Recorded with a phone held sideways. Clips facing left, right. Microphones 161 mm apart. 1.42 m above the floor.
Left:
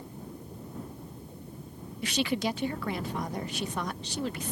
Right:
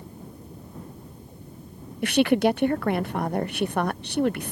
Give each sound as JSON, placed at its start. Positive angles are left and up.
{"t": 2.0, "sound": "a woman speaking", "side_deg": -60}